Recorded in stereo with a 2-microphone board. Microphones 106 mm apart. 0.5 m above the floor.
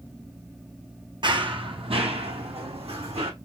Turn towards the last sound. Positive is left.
turn(degrees=-75)  # may be behind; listen again after turning